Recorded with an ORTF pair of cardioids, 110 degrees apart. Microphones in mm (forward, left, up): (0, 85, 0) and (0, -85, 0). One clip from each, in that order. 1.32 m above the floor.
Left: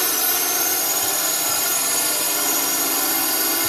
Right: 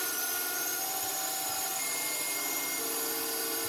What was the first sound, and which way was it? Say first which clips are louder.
A drone: left 12 dB; 65° left.